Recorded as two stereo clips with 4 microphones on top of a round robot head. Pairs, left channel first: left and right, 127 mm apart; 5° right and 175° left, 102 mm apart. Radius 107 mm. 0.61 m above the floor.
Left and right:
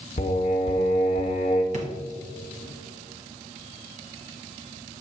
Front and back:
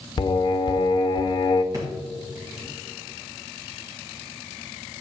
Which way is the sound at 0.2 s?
40° left.